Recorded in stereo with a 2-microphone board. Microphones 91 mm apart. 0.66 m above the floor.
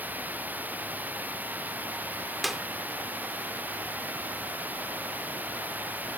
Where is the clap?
Centre (ahead or behind).